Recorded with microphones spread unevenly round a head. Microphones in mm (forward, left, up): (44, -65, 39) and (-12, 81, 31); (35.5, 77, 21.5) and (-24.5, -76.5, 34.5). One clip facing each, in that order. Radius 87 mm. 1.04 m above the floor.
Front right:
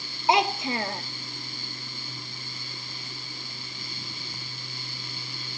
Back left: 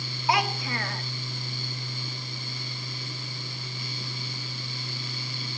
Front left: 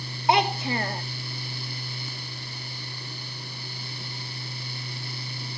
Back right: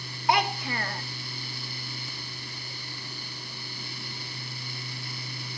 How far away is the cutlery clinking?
No cutlery clinking in this recording.